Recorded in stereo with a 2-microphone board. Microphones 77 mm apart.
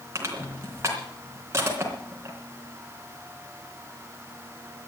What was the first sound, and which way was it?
Crushing, 35° right (ahead or behind).